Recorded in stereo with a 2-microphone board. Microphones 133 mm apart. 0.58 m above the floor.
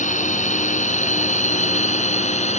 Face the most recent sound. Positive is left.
turn(degrees=60)  # may be behind; listen again after turning